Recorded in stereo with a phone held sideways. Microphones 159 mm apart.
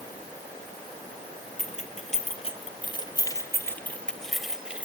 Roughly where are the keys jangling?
Left.